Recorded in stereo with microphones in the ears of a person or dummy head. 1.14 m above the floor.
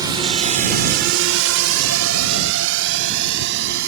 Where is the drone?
20° right (ahead or behind); by 3.9 s 65° right (ahead or behind).